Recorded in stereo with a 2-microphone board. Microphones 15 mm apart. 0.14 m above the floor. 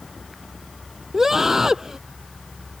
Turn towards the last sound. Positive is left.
turn(degrees=-20)  # may be behind; listen again after turning